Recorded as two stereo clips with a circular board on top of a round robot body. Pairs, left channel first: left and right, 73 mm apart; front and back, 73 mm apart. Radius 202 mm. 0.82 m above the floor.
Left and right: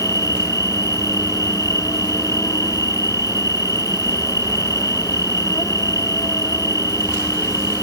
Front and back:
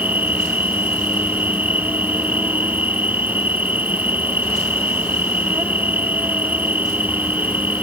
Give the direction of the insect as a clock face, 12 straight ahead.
8 o'clock.